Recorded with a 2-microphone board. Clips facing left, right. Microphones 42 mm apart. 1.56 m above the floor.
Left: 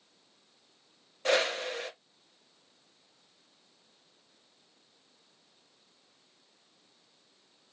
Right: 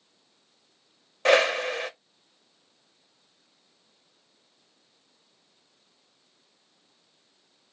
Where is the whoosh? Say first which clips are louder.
Right 7 dB; 75° right (ahead or behind), 0.6 m.